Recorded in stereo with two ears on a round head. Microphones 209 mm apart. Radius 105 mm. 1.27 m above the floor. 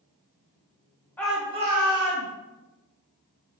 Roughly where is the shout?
Centre.